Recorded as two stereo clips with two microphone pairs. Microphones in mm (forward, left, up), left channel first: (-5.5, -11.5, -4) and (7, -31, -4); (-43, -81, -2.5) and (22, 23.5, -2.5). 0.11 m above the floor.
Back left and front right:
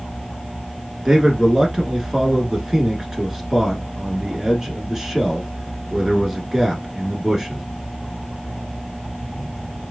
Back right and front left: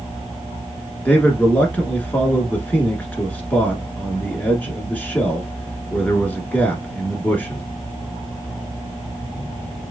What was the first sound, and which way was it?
A man speaking, 75° right.